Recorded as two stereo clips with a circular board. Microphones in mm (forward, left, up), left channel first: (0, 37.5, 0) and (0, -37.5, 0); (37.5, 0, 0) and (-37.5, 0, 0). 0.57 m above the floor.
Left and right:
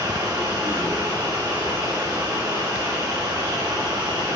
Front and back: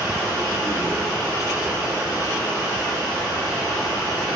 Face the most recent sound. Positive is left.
turn(degrees=-125)